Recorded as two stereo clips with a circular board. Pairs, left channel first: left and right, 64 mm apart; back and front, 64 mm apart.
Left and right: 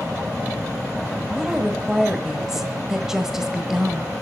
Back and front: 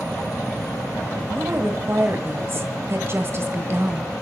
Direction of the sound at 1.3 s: 10° right.